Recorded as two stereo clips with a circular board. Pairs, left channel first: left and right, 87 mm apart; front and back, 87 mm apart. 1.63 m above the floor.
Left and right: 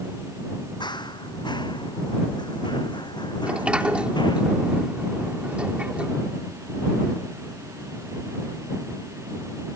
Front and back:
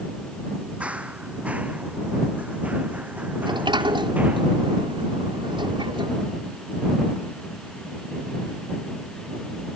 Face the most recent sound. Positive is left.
turn(degrees=-165)